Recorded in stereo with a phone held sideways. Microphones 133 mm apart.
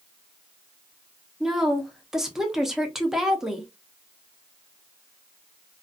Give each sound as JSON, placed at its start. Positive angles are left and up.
{"t": 1.4, "sound": "a woman speaking", "side_deg": -5, "distance_m": 0.6}